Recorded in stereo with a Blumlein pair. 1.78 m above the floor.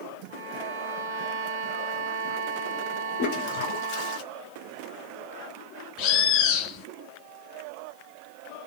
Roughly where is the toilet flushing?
Ahead left.